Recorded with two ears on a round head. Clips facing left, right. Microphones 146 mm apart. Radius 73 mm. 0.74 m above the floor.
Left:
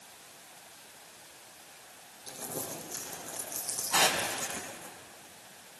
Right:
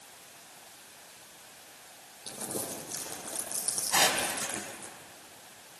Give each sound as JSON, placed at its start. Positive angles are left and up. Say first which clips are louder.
{"t": 2.3, "sound": "crumpling", "louder": "right 2 dB", "side_deg": -65, "distance_m": 10.0}
{"t": 3.9, "sound": "tearing paper", "louder": "even", "side_deg": -20, "distance_m": 4.5}